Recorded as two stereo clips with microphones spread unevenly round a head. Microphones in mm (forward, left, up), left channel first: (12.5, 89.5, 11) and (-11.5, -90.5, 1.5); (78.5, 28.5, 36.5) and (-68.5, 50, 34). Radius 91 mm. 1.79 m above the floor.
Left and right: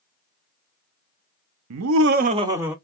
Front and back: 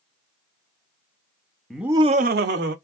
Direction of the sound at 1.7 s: 95° right.